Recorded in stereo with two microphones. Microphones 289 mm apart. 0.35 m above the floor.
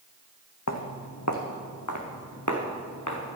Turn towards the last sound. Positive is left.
turn(degrees=80)